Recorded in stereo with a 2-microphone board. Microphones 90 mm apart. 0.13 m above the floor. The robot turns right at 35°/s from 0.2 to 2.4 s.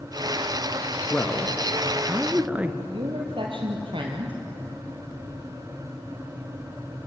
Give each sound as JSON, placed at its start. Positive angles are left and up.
{"t": 1.1, "sound": "a man speaking", "azimuth_deg": 160, "distance_m": 1.8}
{"t": 2.9, "sound": "a woman speaking", "side_deg": -65, "distance_m": 3.0}